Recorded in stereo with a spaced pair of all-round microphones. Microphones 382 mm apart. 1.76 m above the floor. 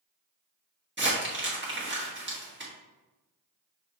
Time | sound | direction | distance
1.0 | crumpling | 30° right (ahead or behind) | 1.5 m